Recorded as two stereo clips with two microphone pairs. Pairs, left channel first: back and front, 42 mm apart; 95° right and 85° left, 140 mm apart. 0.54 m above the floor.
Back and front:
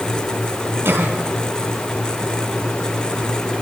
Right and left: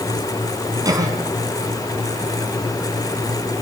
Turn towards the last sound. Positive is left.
turn(degrees=20)